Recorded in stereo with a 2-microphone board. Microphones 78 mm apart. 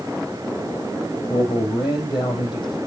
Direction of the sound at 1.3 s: 75° left (ahead or behind).